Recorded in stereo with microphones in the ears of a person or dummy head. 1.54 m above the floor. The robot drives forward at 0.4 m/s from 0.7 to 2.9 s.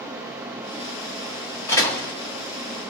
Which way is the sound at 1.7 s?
15° left (ahead or behind).